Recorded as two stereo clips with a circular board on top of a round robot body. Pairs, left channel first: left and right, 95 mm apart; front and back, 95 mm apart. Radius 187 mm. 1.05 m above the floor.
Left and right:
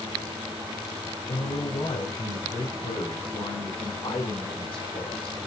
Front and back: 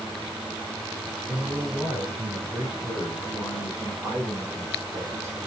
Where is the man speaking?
90° left, 4.5 m; by 5.4 s 115° left, 5 m.